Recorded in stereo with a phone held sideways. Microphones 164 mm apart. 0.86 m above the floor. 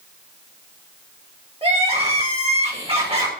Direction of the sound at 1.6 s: 35° right (ahead or behind).